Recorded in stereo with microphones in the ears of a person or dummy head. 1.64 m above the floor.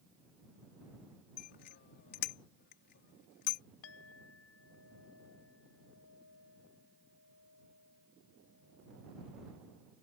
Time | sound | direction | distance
1.4 | a bicycle bell | 55° left (ahead or behind) | ?
3.8 | a clink | 75° left (ahead or behind) | ?